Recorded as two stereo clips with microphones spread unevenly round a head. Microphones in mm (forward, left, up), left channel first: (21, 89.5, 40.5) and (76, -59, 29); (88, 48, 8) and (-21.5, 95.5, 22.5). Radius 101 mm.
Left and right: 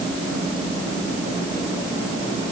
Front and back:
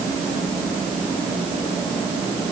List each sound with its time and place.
Only background noise.